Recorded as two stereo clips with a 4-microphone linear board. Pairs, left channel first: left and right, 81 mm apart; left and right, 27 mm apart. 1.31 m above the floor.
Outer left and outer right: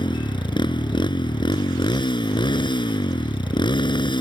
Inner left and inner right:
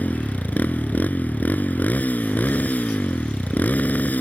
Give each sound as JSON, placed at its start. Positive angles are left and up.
{"t": 0.0, "sound": "a motorcycle", "side_deg": 75}